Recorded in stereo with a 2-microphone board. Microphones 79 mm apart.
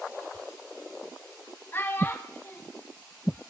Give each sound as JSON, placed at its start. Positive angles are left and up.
{"t": 1.7, "sound": "a child speaking", "side_deg": 30, "distance_m": 2.5}